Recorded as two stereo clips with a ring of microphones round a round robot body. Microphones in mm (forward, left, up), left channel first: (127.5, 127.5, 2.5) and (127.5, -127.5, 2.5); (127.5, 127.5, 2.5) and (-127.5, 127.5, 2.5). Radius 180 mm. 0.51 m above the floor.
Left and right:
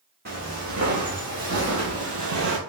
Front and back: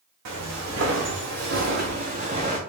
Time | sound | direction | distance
0.2 | footsteps | 155° right | 1.6 m